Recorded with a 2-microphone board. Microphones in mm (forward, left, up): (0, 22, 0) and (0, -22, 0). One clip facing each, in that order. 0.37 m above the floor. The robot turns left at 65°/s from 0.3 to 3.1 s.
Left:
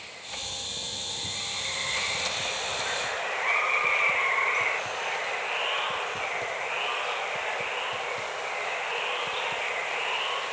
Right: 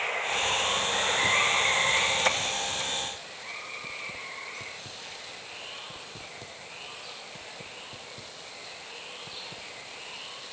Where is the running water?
50° right; by 10.5 s 125° left.